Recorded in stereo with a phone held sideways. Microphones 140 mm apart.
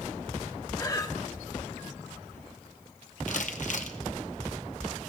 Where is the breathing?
25° left (ahead or behind), 0.6 m.